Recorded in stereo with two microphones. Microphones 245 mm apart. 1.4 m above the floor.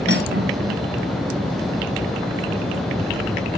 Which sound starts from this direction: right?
Cutlery clinking, at 0.1 s.